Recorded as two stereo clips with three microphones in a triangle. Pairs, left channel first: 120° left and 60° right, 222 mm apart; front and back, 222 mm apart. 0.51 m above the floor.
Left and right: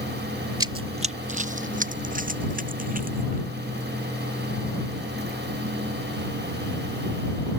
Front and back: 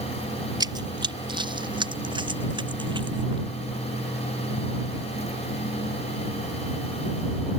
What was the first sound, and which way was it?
Running footsteps, 120° right.